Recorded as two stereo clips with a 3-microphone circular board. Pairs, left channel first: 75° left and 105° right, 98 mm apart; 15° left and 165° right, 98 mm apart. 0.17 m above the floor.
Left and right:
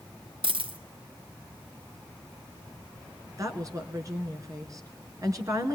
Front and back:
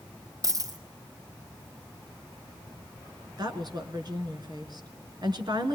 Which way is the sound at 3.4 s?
145° right.